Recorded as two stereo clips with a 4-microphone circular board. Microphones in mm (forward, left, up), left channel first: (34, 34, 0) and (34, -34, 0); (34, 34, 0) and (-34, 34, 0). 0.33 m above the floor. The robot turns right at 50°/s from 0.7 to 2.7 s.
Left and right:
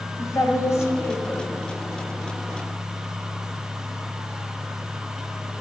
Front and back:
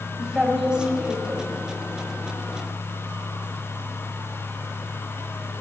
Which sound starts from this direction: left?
A woman speaking, at 0.2 s.